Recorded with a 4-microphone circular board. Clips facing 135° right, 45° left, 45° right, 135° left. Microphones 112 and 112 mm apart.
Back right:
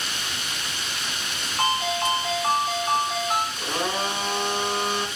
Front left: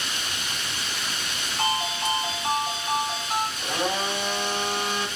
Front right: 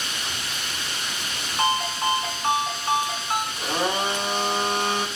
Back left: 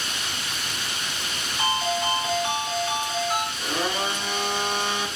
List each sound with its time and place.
1.6 s a ringtone: 85° right, 1.9 m
3.6 s a blender: 85° right, 1.9 m